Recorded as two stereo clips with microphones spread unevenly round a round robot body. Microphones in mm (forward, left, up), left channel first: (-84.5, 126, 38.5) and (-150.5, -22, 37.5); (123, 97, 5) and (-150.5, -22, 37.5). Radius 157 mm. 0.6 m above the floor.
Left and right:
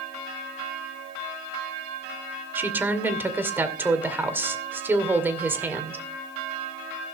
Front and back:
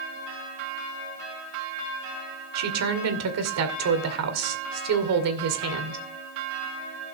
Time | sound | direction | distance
2.5 | a woman speaking | 170° left | 2.5 m